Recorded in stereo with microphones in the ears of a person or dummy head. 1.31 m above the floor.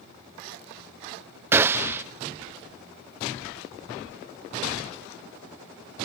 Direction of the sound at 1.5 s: 10° right (ahead or behind).